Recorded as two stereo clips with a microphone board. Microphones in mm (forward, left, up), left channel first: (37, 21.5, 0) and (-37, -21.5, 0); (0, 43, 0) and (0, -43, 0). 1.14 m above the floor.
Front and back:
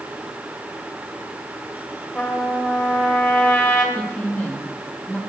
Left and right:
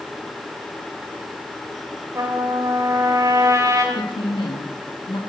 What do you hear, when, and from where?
2.1 s a trumpet: 35° right, 2.5 m
4.0 s a woman speaking: 105° left, 1.7 m